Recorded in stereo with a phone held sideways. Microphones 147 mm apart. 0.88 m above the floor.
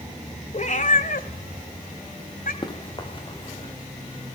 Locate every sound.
0.5 s a cat meowing: 50° left (ahead or behind), 2.5 m; by 2.5 s 70° left (ahead or behind), 3.5 m
2.6 s running footsteps: 35° left (ahead or behind), 5 m